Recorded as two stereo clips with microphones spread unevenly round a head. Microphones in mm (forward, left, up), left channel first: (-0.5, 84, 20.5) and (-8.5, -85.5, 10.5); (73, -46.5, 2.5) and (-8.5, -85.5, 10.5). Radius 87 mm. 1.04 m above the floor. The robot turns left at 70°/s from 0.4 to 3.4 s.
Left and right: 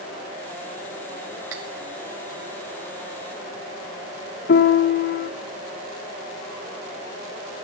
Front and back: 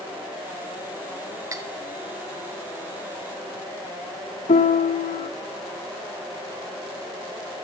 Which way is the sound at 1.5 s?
100° right.